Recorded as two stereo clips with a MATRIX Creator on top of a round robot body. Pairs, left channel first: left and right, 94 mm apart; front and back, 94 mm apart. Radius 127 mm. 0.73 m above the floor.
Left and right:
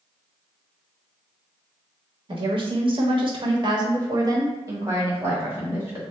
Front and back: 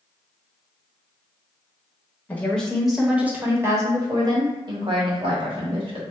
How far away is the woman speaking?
About 1.1 m.